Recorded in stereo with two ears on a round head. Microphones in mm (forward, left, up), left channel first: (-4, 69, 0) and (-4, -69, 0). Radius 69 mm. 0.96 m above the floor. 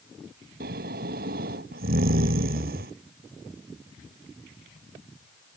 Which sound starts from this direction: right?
Snoring, at 0.6 s.